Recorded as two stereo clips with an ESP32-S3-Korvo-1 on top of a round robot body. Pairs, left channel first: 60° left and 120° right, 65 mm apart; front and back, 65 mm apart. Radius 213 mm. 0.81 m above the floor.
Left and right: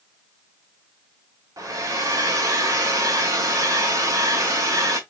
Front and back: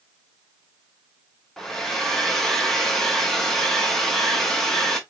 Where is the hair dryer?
80° right, 0.5 m.